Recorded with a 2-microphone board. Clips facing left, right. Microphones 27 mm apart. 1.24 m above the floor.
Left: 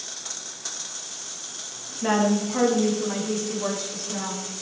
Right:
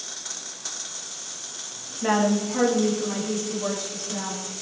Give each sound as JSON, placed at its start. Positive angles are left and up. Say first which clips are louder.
{"t": 2.0, "sound": "a woman speaking", "louder": "even", "side_deg": -5, "distance_m": 1.5}